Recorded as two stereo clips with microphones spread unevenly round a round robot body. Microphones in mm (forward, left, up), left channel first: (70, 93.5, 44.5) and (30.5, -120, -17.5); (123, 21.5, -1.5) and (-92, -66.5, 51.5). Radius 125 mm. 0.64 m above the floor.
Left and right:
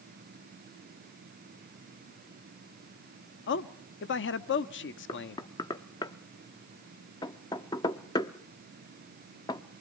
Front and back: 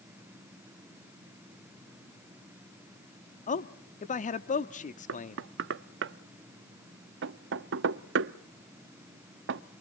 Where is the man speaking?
50° left, 0.9 m.